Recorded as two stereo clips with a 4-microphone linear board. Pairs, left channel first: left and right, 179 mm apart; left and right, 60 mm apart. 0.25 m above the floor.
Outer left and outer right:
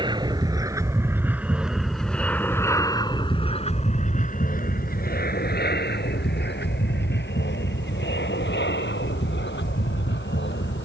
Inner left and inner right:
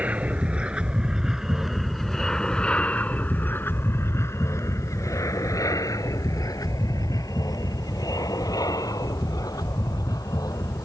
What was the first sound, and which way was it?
An aircraft, 25° right (ahead or behind).